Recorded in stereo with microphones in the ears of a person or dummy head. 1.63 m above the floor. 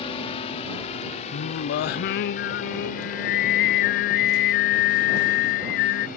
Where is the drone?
25° left (ahead or behind); by 6.2 s 45° left (ahead or behind).